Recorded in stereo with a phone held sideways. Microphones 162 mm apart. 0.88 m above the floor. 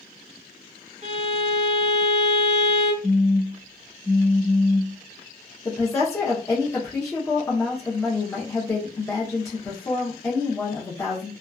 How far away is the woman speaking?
About 0.8 m.